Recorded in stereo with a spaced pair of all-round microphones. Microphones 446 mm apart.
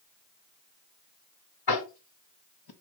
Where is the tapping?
55° left (ahead or behind), 0.8 m.